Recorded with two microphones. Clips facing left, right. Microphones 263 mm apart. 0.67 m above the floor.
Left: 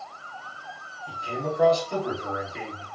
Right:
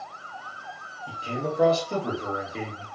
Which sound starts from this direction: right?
A man speaking, at 1.1 s.